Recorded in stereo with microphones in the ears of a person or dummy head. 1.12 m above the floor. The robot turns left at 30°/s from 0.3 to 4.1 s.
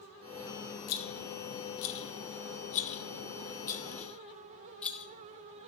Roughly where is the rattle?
Left.